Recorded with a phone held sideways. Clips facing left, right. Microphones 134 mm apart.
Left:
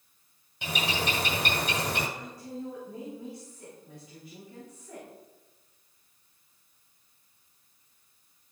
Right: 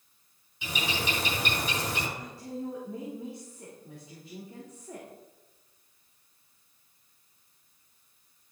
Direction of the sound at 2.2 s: 30° right (ahead or behind).